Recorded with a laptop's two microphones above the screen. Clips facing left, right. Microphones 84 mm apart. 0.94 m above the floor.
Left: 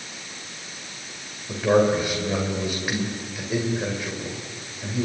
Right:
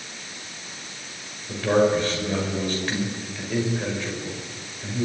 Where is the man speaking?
15° left (ahead or behind), 4.5 m.